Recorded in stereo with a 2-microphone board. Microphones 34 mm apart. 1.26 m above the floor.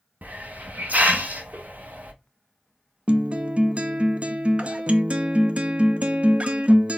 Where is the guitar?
40° right (ahead or behind), 0.5 m.